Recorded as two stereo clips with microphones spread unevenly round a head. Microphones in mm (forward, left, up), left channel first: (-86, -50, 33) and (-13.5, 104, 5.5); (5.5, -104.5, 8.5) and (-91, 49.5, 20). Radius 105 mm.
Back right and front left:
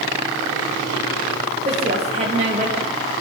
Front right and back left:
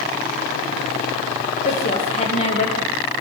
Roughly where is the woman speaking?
Ahead.